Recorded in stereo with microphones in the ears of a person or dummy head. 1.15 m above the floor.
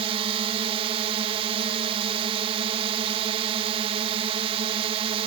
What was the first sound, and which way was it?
A drone, 30° right (ahead or behind).